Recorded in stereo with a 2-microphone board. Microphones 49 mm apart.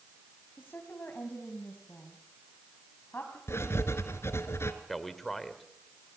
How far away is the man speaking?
About 1.9 m.